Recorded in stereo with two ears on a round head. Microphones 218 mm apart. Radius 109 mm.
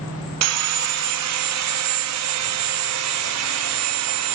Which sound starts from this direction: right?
Sawing, at 0.4 s.